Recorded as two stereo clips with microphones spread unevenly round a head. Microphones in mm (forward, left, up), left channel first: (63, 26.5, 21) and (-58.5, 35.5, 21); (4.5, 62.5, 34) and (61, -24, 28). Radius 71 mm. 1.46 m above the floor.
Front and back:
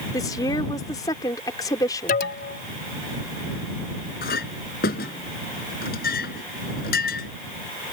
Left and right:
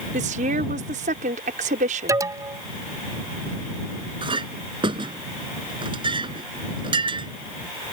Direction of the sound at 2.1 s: 5° left.